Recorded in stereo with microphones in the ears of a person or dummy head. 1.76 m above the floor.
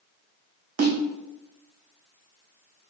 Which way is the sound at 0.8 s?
45° right (ahead or behind).